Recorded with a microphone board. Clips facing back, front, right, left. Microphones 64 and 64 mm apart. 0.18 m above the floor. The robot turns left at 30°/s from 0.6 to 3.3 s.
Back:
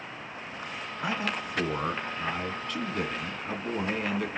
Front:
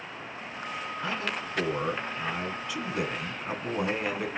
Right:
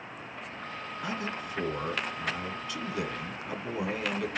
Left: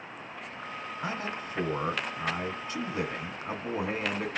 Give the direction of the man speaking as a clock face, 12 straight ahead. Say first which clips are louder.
Back 3 dB, even; 8 o'clock.